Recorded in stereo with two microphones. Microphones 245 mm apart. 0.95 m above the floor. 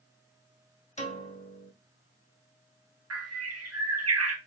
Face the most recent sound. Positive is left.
turn(degrees=-80)